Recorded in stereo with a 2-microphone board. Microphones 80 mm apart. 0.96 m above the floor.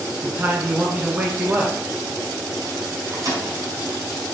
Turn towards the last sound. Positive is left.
turn(degrees=-50)  # may be behind; listen again after turning